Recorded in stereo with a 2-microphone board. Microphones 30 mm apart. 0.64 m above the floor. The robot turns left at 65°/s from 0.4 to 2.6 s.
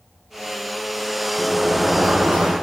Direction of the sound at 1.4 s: 5° right.